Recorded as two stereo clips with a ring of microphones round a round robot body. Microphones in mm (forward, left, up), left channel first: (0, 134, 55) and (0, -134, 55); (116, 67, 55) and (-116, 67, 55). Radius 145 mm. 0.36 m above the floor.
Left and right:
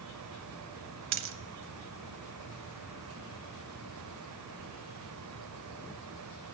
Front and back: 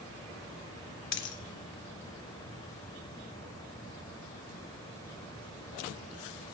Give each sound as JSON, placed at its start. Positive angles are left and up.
{"t": 1.1, "sound": "a dropped coin", "azimuth_deg": -45, "distance_m": 0.7}